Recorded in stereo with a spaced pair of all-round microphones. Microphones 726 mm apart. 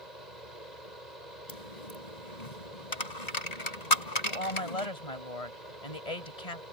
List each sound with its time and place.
0.0 s a fan: 75° right (ahead or behind)
1.5 s a dropped coin: 65° left (ahead or behind)
4.2 s a woman speaking: 55° left (ahead or behind)